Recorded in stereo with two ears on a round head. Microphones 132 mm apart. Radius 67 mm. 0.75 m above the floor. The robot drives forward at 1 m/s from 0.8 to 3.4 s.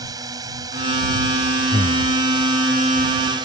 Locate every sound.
0.0 s a drone: 25° right (ahead or behind); by 3.5 s 30° right (ahead or behind)
1.7 s breathing: 35° left (ahead or behind)